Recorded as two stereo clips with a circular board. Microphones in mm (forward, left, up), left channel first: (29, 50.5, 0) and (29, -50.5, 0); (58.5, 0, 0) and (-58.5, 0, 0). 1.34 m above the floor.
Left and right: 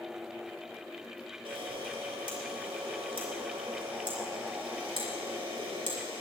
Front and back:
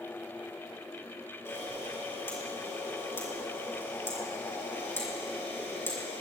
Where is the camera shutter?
70° right, 5.5 m.